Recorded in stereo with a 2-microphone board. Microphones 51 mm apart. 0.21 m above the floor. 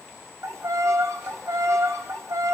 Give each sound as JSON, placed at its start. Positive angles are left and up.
{"t": 0.4, "sound": "a violin", "side_deg": -75, "distance_m": 3.0}